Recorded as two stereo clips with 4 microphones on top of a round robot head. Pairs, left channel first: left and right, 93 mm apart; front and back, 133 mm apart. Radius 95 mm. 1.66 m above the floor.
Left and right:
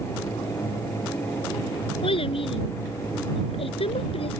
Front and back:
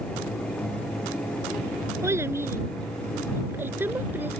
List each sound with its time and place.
2.0 s a child speaking: 110° left; by 4.4 s 100° left